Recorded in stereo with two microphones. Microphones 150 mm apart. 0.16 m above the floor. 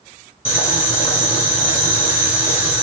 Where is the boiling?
40° left (ahead or behind), 2.0 m.